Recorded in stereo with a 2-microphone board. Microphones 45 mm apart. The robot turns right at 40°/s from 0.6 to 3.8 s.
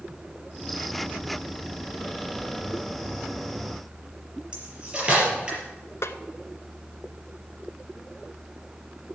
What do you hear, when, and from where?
4.5 s cutlery clinking: 20° right (ahead or behind), 4.5 m
6.0 s a snare drum: 75° left (ahead or behind), 0.8 m